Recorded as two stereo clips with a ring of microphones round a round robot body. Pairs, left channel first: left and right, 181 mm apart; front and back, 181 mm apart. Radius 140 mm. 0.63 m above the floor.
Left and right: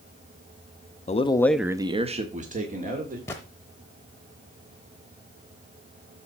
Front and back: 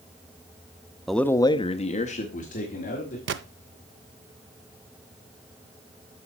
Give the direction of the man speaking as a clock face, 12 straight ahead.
9 o'clock.